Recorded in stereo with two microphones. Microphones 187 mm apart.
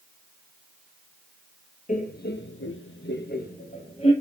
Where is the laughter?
40° left (ahead or behind), 1.2 m; by 4.1 s 30° left (ahead or behind), 1.8 m.